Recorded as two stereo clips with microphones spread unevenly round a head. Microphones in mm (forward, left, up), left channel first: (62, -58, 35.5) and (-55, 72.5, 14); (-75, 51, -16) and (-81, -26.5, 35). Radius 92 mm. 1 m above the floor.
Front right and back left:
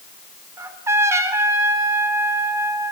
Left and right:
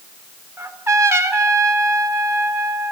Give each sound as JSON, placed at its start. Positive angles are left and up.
{"t": 0.6, "sound": "a trumpet", "azimuth_deg": -155, "distance_m": 3.5}